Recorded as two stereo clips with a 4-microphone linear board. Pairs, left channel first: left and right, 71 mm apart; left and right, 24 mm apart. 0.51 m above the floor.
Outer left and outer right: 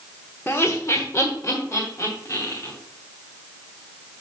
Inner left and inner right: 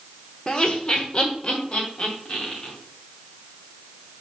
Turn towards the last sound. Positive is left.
turn(degrees=45)  # may be behind; listen again after turning